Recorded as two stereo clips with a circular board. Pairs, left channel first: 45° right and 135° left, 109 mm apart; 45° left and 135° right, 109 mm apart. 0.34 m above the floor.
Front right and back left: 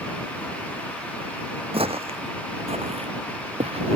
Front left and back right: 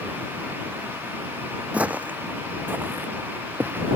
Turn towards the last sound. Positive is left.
turn(degrees=155)